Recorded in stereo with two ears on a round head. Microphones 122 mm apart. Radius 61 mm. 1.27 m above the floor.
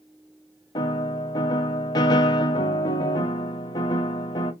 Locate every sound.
0.8 s a piano: 30° left (ahead or behind), 0.7 m